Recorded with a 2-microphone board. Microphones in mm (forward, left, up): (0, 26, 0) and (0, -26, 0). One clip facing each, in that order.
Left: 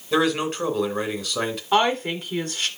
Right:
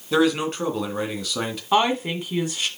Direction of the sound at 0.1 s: Centre (ahead or behind).